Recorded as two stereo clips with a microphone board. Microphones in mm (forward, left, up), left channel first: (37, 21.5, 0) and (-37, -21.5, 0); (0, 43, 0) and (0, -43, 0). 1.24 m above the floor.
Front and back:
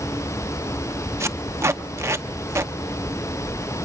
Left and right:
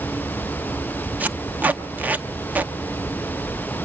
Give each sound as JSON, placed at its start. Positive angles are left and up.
{"t": 1.2, "sound": "tape being pulled", "azimuth_deg": -145, "distance_m": 0.7}